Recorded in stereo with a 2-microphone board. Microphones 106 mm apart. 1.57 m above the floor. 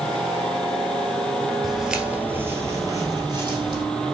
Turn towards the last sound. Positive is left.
turn(degrees=-50)  # may be behind; listen again after turning